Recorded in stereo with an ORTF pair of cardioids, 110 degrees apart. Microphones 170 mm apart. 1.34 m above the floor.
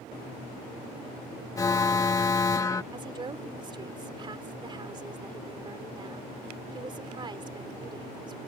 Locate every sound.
1.6 s an alarm: 20° left
2.9 s a woman speaking: 30° right